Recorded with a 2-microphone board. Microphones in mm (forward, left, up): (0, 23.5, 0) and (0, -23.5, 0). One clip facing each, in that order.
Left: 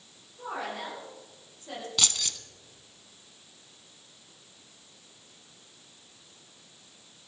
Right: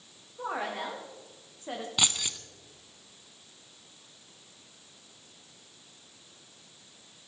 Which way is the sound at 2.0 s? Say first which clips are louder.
Right 1 dB; 15° right (ahead or behind).